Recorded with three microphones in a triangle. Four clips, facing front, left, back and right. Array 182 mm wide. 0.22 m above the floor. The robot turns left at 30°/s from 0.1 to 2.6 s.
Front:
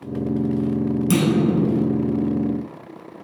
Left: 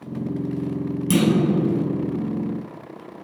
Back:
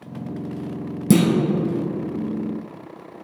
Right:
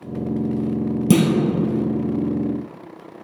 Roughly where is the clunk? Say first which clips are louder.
Right 4 dB, back 6 dB; behind right.